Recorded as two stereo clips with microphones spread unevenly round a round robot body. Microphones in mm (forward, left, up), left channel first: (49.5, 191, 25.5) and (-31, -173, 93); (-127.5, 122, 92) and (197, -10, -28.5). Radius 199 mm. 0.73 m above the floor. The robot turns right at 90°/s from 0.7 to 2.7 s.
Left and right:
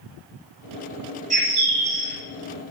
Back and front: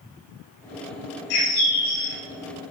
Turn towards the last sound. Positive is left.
turn(degrees=-50)